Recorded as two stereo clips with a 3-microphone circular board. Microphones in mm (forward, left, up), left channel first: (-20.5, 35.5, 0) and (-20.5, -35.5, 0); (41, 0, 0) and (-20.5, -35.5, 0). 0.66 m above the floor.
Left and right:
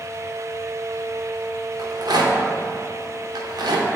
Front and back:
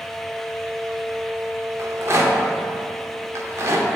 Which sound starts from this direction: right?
A rattle, at 1.8 s.